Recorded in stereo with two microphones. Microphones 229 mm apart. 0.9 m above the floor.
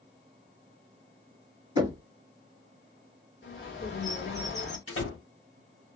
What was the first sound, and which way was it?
Knocking, 15° right (ahead or behind).